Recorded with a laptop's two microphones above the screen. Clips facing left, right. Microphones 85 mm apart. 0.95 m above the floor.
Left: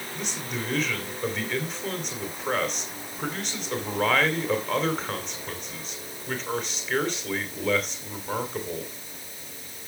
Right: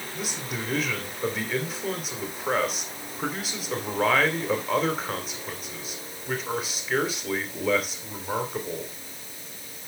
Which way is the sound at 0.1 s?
5° right (ahead or behind).